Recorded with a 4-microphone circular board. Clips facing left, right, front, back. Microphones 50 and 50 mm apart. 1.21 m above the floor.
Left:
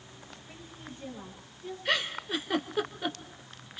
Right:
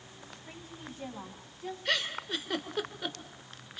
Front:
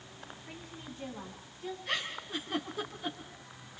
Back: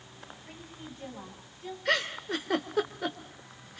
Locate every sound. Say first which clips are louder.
0.5 s a woman speaking: right 1 dB, back 1 dB; 90° right, 7.5 m
1.9 s a giggle: left 2 dB, back 9 dB; 170° left, 2 m